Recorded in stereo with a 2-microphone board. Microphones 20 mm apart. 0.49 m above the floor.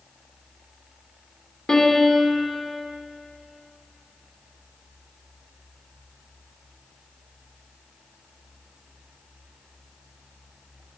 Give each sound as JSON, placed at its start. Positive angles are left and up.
{"t": 1.7, "sound": "a piano", "side_deg": 40, "distance_m": 1.5}